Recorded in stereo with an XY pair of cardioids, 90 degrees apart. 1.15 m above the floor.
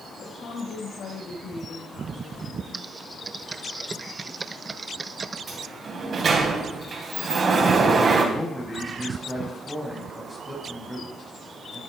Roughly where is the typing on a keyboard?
Ahead right.